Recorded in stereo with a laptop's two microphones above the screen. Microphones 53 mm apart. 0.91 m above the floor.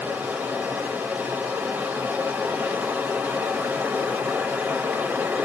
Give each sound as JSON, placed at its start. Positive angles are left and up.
{"t": 0.0, "sound": "running water", "side_deg": -35, "distance_m": 1.0}